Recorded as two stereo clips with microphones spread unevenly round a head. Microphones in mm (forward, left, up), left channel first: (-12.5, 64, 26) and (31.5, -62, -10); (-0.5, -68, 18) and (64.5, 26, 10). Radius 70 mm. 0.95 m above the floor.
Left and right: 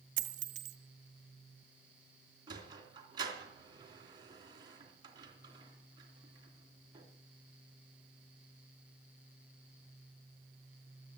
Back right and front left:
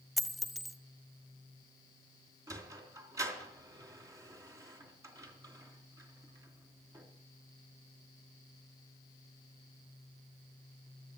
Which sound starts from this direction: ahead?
A sliding door, at 2.5 s.